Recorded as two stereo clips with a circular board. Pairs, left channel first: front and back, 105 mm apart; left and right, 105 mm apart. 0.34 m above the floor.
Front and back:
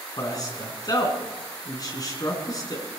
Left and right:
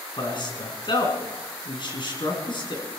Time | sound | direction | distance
0.2 | a man speaking | 50° left | 3.5 m